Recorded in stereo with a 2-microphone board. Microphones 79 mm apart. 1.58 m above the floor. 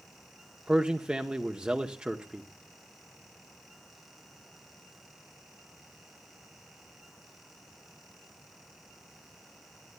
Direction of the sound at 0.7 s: 15° right (ahead or behind).